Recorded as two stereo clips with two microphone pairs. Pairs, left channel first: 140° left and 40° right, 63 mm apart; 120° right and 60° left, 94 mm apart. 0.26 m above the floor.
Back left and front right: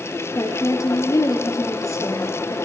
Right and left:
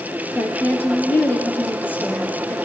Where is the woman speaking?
170° left, 4 m.